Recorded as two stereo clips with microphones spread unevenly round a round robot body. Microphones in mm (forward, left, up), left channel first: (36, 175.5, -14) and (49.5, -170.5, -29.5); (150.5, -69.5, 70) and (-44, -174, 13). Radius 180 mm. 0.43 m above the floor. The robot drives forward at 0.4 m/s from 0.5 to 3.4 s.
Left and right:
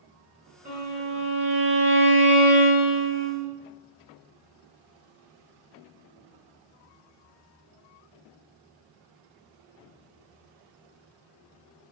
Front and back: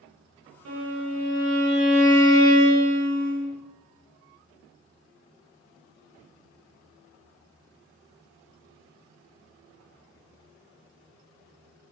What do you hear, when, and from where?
0.7 s a violin: 155° right, 1.4 m; by 3.5 s 165° right, 2.5 m